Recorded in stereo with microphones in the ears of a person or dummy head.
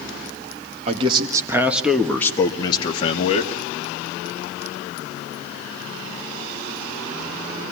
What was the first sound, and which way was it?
A man speaking, 35° right (ahead or behind).